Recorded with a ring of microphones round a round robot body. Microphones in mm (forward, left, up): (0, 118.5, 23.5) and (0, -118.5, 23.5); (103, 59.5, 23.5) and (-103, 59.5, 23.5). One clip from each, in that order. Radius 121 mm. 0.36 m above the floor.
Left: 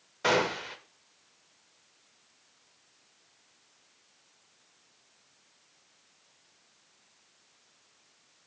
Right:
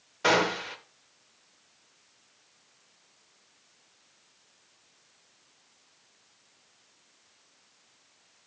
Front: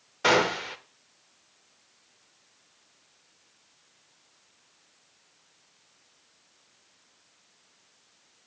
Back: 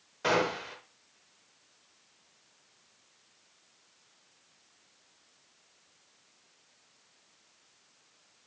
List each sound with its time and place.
0.2 s a gunshot: 5° right, 0.8 m